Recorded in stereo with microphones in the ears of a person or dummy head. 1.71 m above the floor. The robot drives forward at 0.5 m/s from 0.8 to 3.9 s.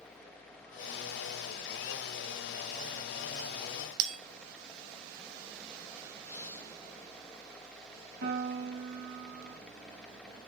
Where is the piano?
75° right (ahead or behind), 3 m.